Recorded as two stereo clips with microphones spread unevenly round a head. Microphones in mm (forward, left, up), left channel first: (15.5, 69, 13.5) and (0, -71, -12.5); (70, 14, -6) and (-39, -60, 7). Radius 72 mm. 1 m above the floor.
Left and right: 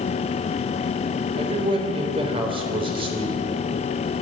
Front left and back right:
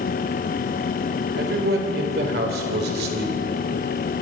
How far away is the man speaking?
About 4 m.